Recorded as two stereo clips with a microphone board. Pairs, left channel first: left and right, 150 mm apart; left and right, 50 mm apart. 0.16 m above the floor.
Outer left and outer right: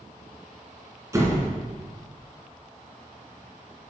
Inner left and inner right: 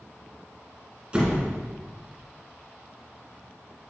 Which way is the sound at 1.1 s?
20° right (ahead or behind).